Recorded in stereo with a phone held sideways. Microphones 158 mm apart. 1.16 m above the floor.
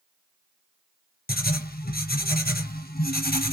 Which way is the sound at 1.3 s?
75° left (ahead or behind).